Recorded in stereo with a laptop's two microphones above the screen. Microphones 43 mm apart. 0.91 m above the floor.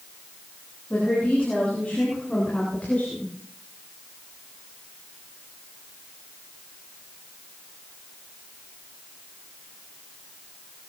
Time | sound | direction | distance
0.9 | a woman speaking | 35° left (ahead or behind) | 7 m